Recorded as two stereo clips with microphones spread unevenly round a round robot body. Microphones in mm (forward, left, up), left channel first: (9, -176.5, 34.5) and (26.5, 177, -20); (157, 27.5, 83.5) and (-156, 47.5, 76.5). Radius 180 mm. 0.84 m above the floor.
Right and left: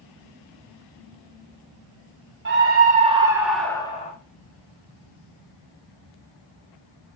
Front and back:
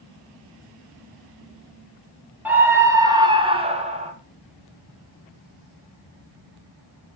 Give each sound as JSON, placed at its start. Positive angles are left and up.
{"t": 2.5, "sound": "a scream", "azimuth_deg": 95, "distance_m": 1.0}